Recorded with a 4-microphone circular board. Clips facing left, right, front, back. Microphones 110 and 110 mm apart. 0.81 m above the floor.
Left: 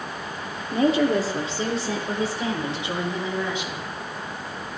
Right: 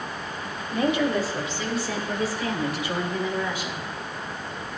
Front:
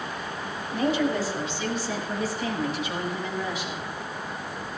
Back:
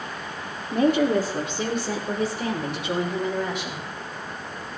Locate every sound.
0.7 s a woman speaking: 140° left, 2 m; by 3.9 s 155° left, 4 m